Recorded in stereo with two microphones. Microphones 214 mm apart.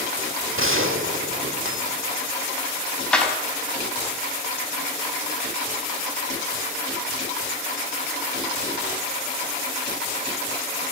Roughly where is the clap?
Centre.